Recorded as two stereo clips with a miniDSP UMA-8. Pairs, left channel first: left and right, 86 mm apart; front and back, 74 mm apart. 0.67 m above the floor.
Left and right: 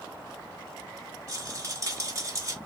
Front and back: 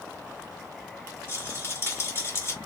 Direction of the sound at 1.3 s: 45° right.